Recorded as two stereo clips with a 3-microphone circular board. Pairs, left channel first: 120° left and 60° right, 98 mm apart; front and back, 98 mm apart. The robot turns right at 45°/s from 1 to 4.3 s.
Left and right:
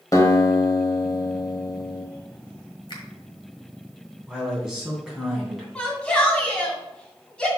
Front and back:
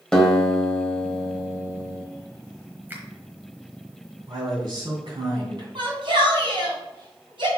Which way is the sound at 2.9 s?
115° left.